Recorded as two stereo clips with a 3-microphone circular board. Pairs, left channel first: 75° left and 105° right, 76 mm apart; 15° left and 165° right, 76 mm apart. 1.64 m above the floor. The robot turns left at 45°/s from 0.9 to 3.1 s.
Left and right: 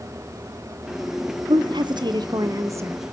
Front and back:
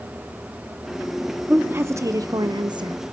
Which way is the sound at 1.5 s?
95° right.